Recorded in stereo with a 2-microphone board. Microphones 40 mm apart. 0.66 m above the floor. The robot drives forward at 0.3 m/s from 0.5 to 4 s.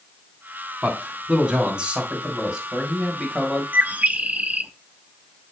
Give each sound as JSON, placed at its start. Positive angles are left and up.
{"t": 0.8, "sound": "a man speaking", "side_deg": -35, "distance_m": 3.0}
{"t": 3.7, "sound": "a bird", "side_deg": -40, "distance_m": 0.6}